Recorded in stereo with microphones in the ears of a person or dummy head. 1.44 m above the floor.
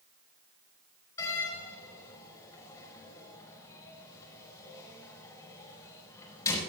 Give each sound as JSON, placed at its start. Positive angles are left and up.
{"t": 1.2, "sound": "a door slam", "side_deg": 15, "distance_m": 4.5}